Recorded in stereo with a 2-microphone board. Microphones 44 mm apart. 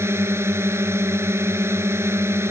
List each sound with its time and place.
0.0 s a drone: 70° right (ahead or behind)